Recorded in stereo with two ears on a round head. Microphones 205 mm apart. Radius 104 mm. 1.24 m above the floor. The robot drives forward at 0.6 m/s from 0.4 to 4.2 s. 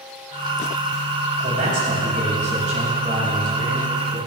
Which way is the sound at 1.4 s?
40° right (ahead or behind).